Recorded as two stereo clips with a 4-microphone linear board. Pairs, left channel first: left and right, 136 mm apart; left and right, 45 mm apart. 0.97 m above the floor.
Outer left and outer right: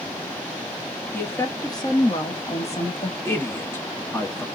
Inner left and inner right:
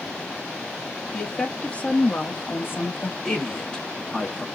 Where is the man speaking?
15° left (ahead or behind), 1.2 m.